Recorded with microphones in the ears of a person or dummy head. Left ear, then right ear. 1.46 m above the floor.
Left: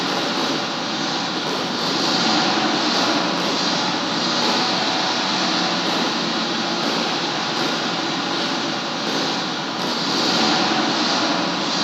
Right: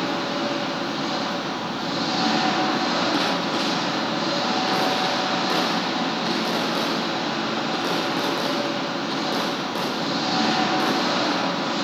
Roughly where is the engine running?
Left.